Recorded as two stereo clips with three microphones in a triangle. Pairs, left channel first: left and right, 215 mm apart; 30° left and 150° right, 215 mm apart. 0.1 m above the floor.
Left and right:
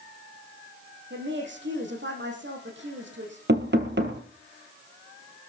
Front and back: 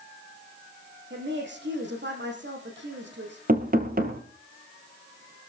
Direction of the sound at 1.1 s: 120° right.